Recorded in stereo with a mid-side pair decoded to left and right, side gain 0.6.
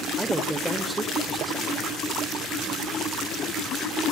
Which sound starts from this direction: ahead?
A man speaking, at 0.2 s.